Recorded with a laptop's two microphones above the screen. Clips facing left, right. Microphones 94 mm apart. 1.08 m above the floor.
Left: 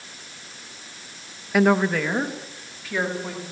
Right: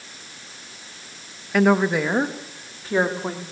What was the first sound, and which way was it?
A woman speaking, 5° left (ahead or behind).